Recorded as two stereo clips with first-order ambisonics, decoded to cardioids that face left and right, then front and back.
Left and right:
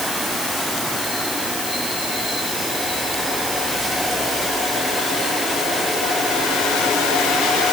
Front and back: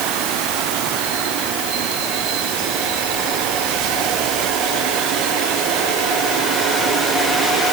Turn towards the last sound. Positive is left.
No sound to turn to.